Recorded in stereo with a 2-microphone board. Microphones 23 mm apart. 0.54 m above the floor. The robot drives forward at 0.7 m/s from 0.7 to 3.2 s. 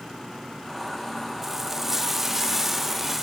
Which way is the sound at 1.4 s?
15° right (ahead or behind).